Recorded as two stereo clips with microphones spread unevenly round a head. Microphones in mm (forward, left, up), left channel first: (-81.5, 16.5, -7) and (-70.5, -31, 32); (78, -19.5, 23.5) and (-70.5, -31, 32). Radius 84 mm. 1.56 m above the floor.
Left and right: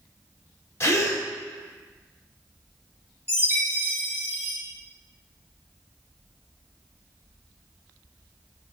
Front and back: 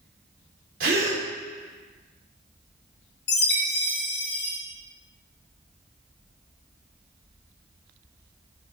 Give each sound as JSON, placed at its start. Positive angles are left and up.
{"t": 0.8, "sound": "a gasp", "azimuth_deg": 145, "distance_m": 3.0}
{"t": 3.3, "sound": "a chime", "azimuth_deg": 5, "distance_m": 3.0}